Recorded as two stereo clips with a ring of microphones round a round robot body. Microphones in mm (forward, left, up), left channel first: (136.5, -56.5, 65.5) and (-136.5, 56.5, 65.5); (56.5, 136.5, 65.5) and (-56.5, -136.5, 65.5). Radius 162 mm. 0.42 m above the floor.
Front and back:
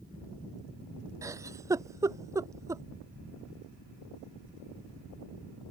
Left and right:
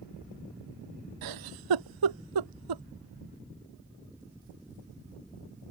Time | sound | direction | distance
1.2 | a giggle | 125° right | ?